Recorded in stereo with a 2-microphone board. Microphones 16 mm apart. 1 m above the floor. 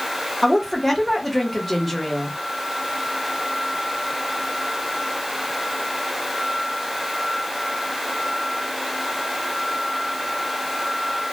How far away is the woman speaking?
About 1.4 m.